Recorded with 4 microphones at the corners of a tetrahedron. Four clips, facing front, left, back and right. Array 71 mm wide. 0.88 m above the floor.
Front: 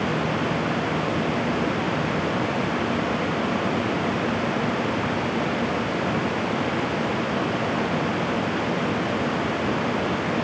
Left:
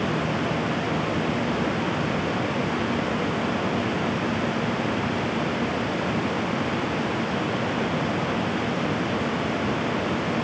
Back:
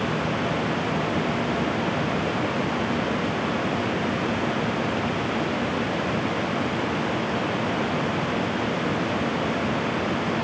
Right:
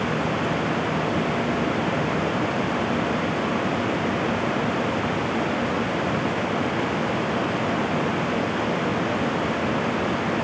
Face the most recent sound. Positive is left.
No sound to turn to.